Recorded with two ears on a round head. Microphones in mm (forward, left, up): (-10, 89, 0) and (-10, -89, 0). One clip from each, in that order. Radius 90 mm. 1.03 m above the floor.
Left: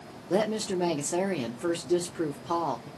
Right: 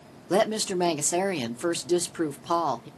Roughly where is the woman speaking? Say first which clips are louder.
Right 3 dB; right.